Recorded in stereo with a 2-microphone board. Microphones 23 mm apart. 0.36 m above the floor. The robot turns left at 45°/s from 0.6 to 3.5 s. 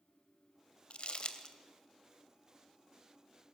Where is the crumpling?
55° left (ahead or behind), 1.1 m; by 1.6 s 35° left (ahead or behind), 1.1 m.